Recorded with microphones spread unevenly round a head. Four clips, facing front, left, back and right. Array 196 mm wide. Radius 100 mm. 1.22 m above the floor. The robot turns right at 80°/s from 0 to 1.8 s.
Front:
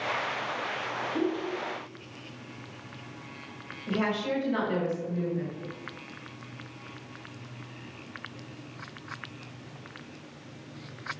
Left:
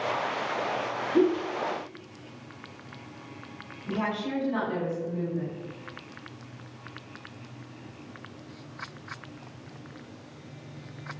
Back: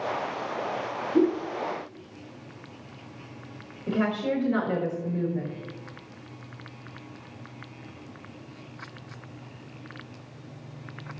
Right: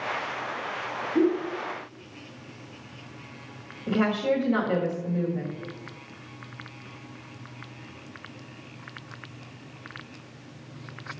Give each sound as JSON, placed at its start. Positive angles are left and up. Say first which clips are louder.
{"t": 1.1, "sound": "a whoosh", "louder": "even, back 8 dB", "azimuth_deg": 135, "distance_m": 4.0}
{"t": 3.9, "sound": "a woman speaking", "louder": "right 6 dB, back 3 dB", "azimuth_deg": -140, "distance_m": 5.0}